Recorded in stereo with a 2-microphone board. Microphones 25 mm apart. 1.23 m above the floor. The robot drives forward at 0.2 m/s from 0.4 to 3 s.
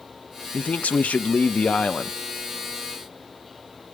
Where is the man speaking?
90° left, 0.7 m; by 2.2 s 65° left (ahead or behind), 0.8 m.